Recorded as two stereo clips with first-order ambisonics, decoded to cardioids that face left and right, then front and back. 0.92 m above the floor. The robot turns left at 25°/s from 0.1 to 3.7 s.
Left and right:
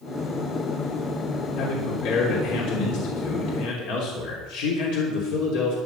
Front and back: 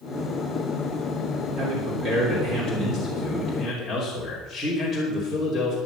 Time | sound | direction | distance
1.6 | a man speaking | 140° left | 3 m